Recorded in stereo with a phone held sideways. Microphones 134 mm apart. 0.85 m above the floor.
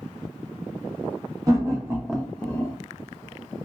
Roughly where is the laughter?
Right.